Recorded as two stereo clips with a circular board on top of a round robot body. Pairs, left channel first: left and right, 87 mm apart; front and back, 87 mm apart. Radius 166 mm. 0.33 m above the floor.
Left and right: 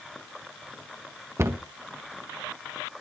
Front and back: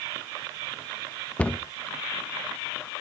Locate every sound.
1.4 s a cupboard door: 60° right, 1.2 m